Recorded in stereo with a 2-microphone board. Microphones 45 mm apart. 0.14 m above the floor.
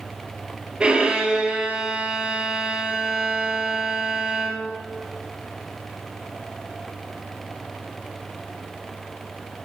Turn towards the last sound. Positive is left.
turn(degrees=-25)  # may be behind; listen again after turning